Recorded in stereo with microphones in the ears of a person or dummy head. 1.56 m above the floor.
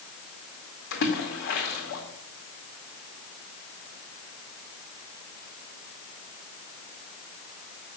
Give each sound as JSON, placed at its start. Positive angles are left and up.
{"t": 0.9, "sound": "a splash", "side_deg": 65, "distance_m": 2.0}